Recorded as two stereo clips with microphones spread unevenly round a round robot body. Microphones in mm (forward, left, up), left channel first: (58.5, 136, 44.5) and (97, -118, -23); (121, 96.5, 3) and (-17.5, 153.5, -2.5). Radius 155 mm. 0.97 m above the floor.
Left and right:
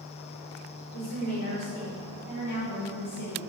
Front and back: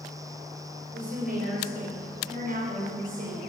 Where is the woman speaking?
140° left, 4 m.